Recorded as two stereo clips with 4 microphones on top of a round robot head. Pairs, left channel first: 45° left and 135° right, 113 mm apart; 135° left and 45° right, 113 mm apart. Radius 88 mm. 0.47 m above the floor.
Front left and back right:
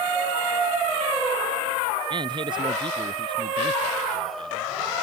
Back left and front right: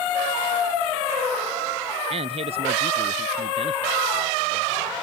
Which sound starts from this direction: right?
A man speaking, at 2.1 s.